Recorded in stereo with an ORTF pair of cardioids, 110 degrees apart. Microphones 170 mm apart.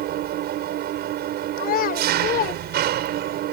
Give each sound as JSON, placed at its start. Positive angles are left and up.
{"t": 0.0, "sound": "an engine running", "azimuth_deg": -70}
{"t": 1.6, "sound": "a child speaking", "azimuth_deg": 60}